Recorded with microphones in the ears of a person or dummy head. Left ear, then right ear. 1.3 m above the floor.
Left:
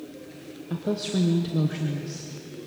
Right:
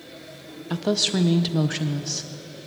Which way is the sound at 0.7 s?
35° right (ahead or behind).